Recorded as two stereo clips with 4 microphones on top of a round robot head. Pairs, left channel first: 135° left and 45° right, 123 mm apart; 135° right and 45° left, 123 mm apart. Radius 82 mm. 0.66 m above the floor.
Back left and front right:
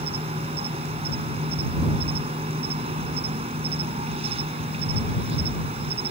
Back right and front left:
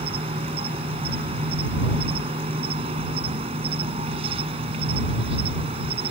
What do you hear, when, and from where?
0.0 s an insect: straight ahead